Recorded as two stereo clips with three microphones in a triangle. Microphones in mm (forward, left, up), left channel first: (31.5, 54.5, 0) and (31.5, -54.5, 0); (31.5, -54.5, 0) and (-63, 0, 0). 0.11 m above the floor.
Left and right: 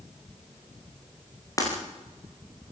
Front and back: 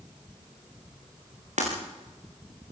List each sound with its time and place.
1.6 s breaking glass: 150° left, 8 m